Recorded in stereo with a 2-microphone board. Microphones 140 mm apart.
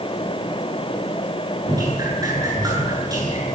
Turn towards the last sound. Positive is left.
turn(degrees=-25)  # may be behind; listen again after turning